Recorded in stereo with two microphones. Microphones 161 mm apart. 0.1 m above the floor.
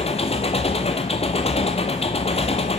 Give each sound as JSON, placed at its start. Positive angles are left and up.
{"t": 0.0, "sound": "an engine running", "side_deg": 40, "distance_m": 1.0}